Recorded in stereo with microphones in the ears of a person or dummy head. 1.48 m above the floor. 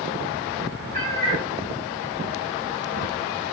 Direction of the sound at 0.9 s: 35° right (ahead or behind).